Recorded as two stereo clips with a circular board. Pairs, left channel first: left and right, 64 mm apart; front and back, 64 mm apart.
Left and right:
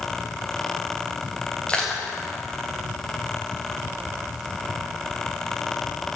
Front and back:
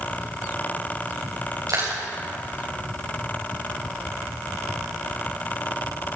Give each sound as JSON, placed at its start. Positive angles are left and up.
{"t": 1.7, "sound": "crushing", "azimuth_deg": 160, "distance_m": 6.0}